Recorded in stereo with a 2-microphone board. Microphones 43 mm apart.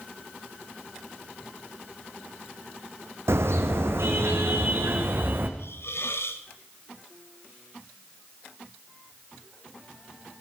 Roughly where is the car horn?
Right.